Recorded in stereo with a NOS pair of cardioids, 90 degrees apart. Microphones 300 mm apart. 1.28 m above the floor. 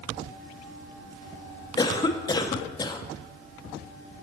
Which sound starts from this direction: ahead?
A cough, at 1.8 s.